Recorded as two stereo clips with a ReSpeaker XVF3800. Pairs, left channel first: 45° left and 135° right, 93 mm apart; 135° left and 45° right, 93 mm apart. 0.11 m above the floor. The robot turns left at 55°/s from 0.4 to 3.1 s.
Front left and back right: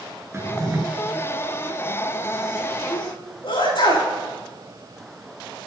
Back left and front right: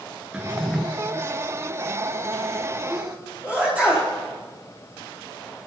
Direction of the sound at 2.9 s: 40° left.